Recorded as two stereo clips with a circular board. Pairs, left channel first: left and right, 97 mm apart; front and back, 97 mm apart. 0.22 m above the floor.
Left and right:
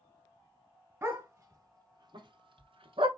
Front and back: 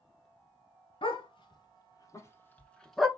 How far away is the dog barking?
About 1.5 m.